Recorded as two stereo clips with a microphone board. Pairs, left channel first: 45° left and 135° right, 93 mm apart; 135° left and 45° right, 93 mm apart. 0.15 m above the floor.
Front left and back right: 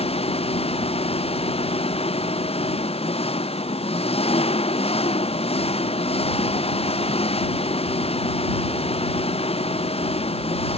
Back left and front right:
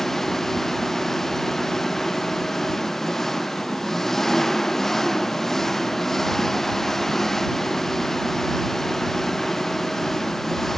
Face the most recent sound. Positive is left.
turn(degrees=50)